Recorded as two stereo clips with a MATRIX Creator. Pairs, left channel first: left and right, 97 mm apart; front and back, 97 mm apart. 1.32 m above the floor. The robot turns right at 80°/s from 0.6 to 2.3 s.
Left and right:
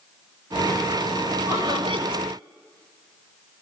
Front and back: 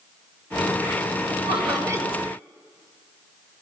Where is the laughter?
155° right, 5.5 m; by 2.2 s 95° right, 5.5 m.